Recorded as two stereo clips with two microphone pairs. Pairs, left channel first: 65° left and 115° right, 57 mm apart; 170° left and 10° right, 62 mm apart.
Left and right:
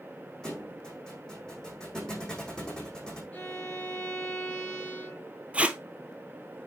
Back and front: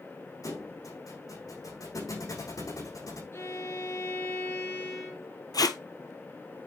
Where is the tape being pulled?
Straight behind, 0.8 m.